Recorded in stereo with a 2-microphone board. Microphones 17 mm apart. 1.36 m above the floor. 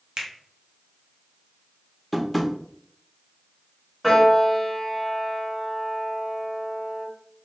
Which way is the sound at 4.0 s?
10° right (ahead or behind).